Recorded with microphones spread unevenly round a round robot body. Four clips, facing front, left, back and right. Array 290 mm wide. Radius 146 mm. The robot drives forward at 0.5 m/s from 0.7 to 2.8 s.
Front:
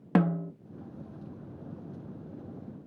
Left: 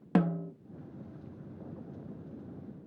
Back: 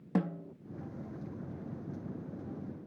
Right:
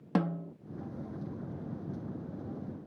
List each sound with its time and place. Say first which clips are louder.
0.1 s a snare drum: left 3 dB, front 7 dB; straight ahead, 0.6 m